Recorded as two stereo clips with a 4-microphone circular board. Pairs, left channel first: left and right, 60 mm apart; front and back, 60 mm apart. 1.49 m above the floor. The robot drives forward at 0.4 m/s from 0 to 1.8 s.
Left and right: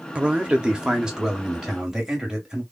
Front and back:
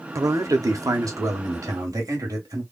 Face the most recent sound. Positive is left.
turn(degrees=-170)